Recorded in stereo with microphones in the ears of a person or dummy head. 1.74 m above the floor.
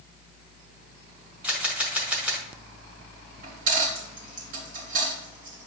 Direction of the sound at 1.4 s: 5° right (ahead or behind).